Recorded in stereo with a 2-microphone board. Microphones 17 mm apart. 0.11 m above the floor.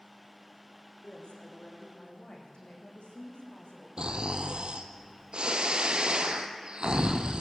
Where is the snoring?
65° right (ahead or behind), 1.5 m.